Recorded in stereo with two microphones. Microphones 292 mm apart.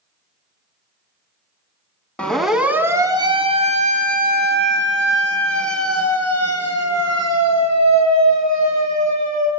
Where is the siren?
5° left (ahead or behind), 3.5 m; by 9.5 s 70° right (ahead or behind), 7.5 m.